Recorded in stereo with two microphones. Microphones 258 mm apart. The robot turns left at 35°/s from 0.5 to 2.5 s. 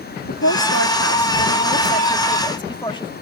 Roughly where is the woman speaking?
Left.